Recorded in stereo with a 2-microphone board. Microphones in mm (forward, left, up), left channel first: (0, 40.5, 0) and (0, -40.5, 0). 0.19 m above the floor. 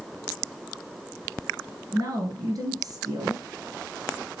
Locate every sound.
1.9 s a woman speaking: 55° right (ahead or behind), 2.5 m